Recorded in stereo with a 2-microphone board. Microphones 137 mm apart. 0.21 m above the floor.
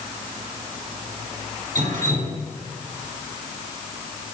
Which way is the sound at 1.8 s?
70° right (ahead or behind).